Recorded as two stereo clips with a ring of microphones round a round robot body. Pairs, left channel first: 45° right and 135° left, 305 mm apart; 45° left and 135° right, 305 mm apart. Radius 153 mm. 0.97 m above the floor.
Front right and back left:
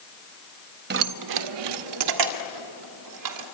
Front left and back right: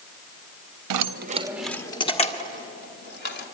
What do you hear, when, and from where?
0.9 s keys jangling: 165° right, 0.7 m; by 3.4 s 105° left, 3 m